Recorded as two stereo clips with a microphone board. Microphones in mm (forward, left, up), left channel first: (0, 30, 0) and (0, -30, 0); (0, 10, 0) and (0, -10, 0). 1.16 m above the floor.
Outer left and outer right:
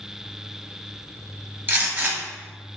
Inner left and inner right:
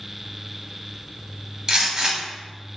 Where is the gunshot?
35° right (ahead or behind), 1.4 m.